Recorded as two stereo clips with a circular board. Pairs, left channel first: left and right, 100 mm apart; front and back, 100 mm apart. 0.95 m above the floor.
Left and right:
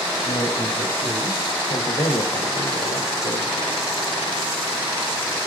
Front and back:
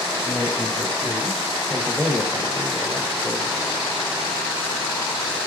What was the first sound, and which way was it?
A man speaking, 90° left.